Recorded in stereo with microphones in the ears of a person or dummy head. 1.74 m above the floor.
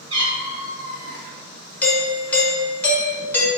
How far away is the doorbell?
About 0.6 m.